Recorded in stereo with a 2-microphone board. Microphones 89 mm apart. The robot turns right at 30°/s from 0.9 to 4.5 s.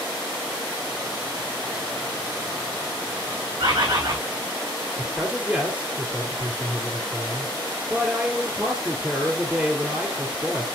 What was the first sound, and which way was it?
A bird, 60° right (ahead or behind).